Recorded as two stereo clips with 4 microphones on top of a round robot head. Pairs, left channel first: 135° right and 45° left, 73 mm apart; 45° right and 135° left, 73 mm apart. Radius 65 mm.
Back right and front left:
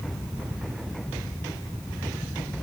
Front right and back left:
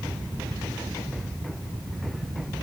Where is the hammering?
I don't hear hammering.